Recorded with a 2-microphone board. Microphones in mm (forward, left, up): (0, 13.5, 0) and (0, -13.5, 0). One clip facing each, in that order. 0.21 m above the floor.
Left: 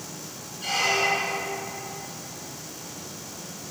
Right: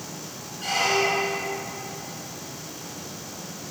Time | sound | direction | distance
0.6 | a squeak | 75° right (ahead or behind) | 1.5 m